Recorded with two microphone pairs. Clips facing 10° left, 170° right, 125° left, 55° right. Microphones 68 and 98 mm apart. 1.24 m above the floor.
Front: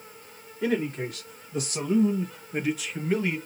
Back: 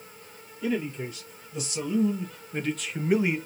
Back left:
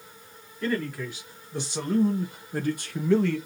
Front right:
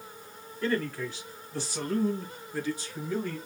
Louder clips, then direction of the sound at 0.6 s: Front 2 dB, back left 1 dB; 40° left.